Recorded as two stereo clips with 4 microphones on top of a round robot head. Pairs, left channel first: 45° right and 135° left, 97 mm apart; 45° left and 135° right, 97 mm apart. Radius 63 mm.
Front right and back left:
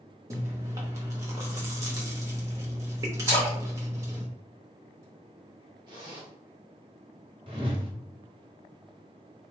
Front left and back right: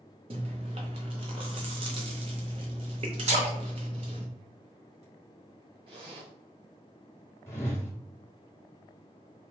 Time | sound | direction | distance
0.3 | chewing | 165° right | 0.8 m
3.2 | a splash | 160° right | 2.5 m
5.9 | a zipper | 175° right | 1.4 m
7.5 | a whoosh | 110° left | 1.0 m